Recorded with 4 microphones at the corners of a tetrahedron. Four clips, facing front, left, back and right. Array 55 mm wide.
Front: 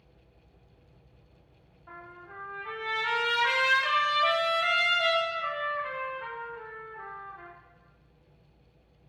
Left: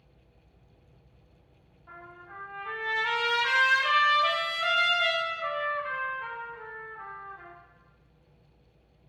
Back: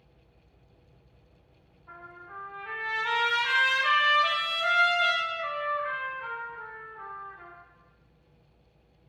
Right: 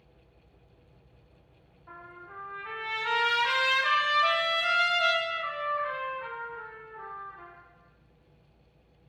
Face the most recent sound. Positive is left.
turn(degrees=-5)